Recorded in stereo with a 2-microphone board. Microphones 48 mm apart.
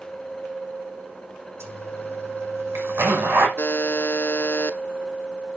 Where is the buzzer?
50° left (ahead or behind), 1.1 m.